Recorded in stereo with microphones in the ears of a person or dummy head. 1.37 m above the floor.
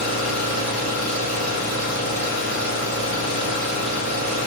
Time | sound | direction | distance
0.0 | an engine running | 40° left (ahead or behind) | 1.0 m